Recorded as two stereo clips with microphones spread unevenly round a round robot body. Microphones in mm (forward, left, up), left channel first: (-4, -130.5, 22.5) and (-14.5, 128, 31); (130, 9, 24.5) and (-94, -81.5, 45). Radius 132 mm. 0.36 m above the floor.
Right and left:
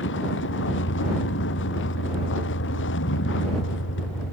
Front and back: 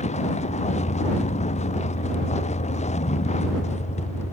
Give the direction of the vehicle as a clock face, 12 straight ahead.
1 o'clock.